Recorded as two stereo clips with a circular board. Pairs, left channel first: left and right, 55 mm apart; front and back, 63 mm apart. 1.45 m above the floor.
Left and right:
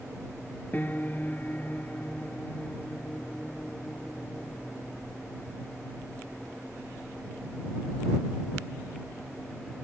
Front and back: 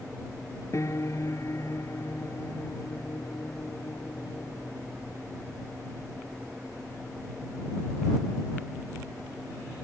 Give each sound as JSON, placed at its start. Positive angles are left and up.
{"t": 0.7, "sound": "a piano", "azimuth_deg": 35}